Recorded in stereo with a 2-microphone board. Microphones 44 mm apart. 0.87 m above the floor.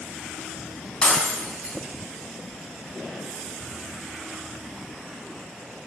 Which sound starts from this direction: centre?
Breaking glass, at 1.0 s.